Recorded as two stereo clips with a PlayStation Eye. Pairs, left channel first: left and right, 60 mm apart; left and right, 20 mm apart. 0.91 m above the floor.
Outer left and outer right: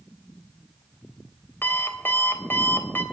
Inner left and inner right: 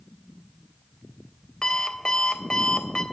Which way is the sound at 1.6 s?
35° left (ahead or behind).